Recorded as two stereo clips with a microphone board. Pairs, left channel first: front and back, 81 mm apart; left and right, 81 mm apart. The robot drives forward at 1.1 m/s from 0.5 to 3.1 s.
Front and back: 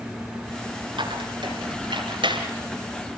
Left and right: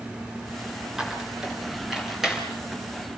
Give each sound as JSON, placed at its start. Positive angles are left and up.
{"t": 1.0, "sound": "a squeak", "azimuth_deg": -175, "distance_m": 4.0}